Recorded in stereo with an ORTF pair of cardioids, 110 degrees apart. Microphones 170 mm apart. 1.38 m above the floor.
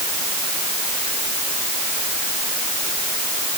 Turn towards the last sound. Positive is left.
No sound to turn to.